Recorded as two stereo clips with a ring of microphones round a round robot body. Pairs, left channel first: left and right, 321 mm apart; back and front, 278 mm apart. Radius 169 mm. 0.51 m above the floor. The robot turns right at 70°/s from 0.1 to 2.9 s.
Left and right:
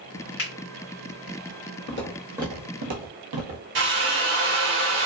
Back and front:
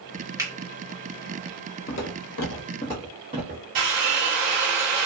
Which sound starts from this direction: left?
A finger snap, at 0.4 s.